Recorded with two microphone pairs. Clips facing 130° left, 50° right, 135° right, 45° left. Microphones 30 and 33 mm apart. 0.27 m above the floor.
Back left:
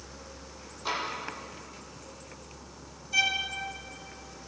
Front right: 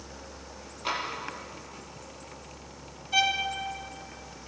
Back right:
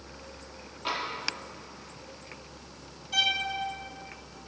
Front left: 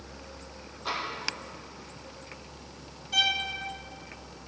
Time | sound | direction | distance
0.8 | tapping | 90° right | 5.5 m
3.1 | a violin | 45° right | 2.5 m